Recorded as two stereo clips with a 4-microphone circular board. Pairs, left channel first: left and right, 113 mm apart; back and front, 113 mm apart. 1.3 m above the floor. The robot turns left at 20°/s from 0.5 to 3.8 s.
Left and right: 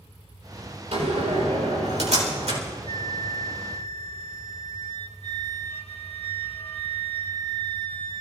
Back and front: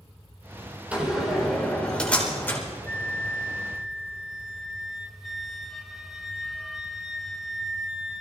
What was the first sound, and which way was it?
A door slam, 80° right.